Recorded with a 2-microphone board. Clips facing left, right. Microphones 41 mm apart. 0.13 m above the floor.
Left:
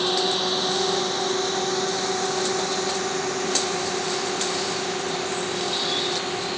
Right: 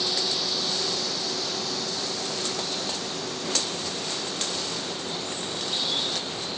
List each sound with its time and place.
0.0 s a drone: 45° left (ahead or behind); by 6.6 s 65° left (ahead or behind)